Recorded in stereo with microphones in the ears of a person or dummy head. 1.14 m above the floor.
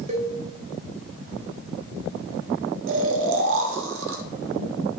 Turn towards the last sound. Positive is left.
turn(degrees=-65)  # may be behind; listen again after turning